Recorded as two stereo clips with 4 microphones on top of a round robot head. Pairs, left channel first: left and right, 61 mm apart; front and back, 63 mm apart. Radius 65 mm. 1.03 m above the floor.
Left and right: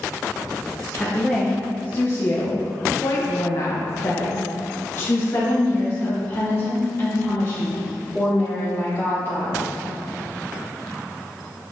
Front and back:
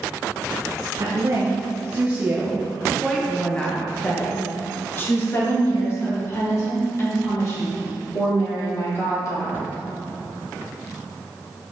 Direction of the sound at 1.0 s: 150° left.